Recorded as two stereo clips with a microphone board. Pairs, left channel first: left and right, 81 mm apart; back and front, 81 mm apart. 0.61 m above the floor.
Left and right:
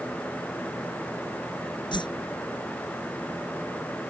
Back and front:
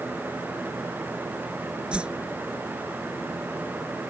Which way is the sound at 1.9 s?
80° left.